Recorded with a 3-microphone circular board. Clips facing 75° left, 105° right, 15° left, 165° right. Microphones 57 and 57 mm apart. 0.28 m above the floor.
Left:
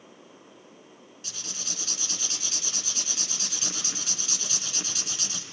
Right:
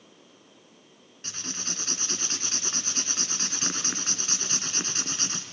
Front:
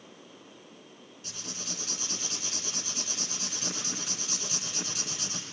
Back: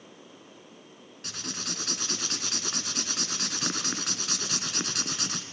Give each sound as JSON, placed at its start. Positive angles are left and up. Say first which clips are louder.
{"t": 1.2, "sound": "writing", "louder": "right 4 dB, back 5 dB", "azimuth_deg": -150, "distance_m": 1.6}